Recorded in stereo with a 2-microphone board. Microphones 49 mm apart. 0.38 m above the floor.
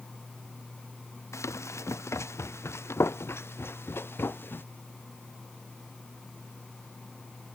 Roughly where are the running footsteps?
Left.